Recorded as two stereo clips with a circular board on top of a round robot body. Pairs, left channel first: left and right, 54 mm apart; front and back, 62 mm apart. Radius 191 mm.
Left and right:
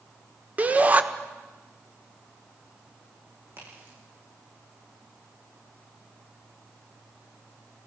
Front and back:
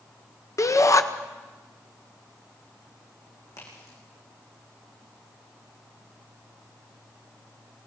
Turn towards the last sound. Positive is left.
turn(degrees=-35)